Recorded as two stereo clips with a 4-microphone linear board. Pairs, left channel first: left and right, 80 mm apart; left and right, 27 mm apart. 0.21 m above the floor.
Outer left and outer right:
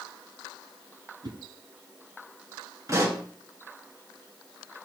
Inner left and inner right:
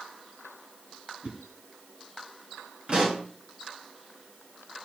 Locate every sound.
1.2 s a whoosh: 55° right (ahead or behind), 2 m
2.9 s a pop: 40° right (ahead or behind), 2.5 m